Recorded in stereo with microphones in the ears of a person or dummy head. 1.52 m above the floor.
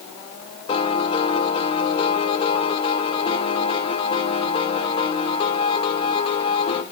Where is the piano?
40° left (ahead or behind), 2 m.